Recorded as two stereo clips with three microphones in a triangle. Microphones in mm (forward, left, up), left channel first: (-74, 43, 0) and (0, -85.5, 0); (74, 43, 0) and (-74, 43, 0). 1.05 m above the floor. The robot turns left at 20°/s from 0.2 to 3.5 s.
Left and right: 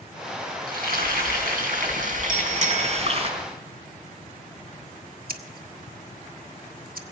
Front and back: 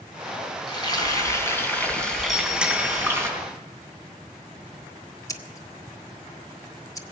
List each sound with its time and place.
0.7 s frying: 60° right, 4 m; by 3.3 s 110° right, 4 m
2.3 s a bicycle bell: 90° right, 2.5 m; by 3.0 s 105° right, 2.5 m
5.3 s scissors: 65° right, 1.1 m